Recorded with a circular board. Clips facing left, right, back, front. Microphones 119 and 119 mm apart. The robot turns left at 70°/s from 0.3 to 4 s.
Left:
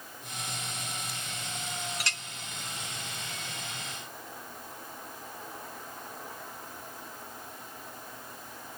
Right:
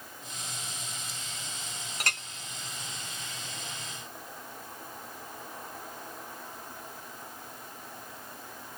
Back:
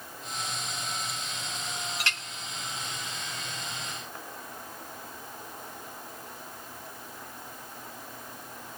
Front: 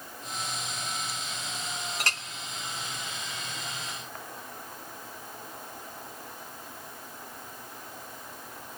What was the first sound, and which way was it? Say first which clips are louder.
A clink: right 2 dB, front 3 dB; 45° right.